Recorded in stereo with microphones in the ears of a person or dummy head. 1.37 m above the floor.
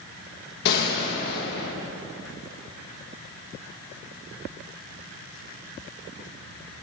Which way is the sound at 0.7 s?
55° left (ahead or behind).